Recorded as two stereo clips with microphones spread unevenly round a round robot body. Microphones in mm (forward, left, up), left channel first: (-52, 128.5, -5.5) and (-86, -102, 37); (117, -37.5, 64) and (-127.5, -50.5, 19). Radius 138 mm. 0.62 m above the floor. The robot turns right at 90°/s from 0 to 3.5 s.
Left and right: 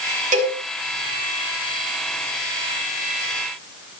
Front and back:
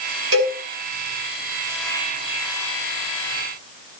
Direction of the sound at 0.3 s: 155° right.